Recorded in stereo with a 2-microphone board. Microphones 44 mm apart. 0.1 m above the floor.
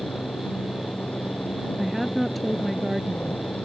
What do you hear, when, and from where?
0.0 s a helicopter: 30° left (ahead or behind); by 3.7 s 35° left (ahead or behind)
1.8 s a woman speaking: centre (ahead or behind)